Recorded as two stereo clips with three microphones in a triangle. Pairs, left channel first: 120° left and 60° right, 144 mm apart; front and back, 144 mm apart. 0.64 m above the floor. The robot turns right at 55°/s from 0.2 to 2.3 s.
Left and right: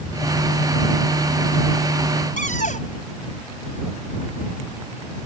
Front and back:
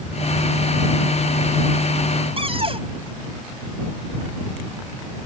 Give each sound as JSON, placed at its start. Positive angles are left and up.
{"t": 2.4, "sound": "a cupboard door", "azimuth_deg": 135}